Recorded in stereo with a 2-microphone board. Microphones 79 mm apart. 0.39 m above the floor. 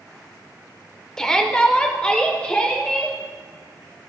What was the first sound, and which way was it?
A shout, 10° left (ahead or behind).